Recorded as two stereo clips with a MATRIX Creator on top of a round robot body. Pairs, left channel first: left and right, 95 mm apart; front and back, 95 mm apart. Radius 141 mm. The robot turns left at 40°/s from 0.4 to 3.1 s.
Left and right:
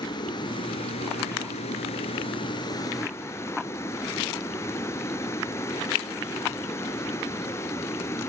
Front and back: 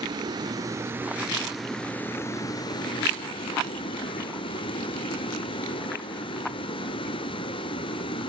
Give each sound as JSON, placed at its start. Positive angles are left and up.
{"t": 0.0, "sound": "running water", "azimuth_deg": 135, "distance_m": 0.9}